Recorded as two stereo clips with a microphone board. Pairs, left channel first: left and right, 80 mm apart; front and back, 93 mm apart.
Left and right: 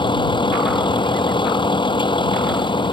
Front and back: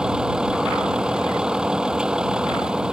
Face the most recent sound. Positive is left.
turn(degrees=100)